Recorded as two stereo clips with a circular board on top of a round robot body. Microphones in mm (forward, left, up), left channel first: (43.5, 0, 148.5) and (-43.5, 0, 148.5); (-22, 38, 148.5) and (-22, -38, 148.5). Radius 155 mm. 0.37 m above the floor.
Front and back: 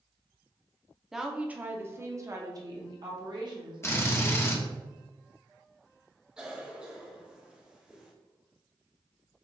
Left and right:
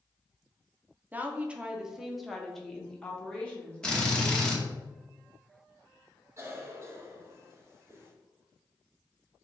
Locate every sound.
1.1 s a woman speaking: 100° right, 0.9 m; by 4.7 s 155° left, 1.9 m
3.8 s a drill: 20° left, 1.4 m
6.4 s a cough: 105° right, 1.4 m